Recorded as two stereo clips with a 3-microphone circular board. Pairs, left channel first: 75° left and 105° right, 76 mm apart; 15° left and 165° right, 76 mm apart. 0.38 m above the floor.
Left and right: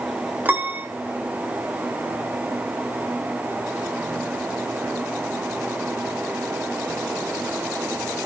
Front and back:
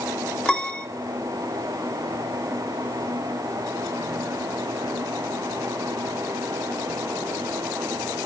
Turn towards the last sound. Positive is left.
turn(degrees=-55)